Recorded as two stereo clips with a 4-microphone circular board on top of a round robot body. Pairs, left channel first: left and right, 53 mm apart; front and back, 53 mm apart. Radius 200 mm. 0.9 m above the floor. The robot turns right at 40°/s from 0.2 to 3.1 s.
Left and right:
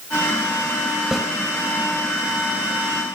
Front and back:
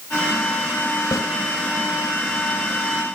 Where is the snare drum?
10° right, 5 m; by 1.3 s 5° right, 5 m.